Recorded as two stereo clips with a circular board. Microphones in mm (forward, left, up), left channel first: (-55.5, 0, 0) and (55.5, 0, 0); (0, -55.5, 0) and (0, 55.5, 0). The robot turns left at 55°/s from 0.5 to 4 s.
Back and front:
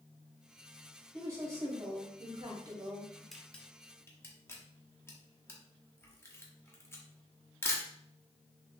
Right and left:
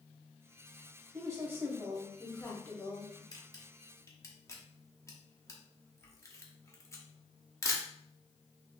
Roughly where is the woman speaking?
Ahead left.